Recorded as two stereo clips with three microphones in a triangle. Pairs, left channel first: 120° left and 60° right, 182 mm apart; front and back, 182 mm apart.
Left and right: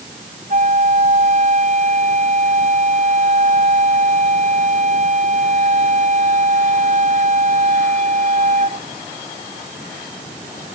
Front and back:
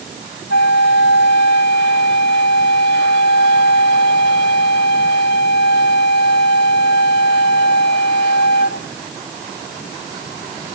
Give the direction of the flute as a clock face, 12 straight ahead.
12 o'clock.